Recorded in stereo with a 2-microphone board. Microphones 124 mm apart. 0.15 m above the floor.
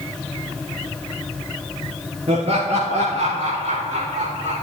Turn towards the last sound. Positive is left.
turn(degrees=-75)  # may be behind; listen again after turning